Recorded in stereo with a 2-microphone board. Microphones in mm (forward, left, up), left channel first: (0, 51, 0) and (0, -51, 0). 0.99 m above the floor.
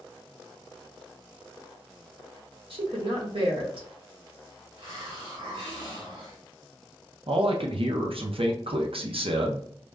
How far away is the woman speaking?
About 1.2 m.